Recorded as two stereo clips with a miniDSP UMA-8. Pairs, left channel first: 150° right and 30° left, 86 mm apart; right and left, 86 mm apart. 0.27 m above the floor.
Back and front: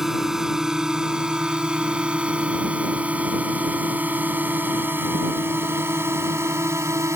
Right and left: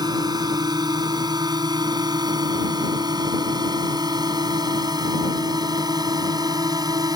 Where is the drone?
115° left; by 7.2 s 75° left.